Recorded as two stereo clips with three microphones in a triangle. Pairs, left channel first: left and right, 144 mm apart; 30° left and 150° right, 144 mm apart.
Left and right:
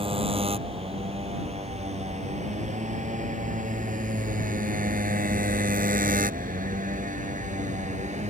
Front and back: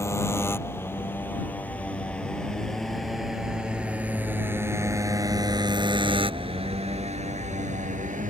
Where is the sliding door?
No sliding door in this recording.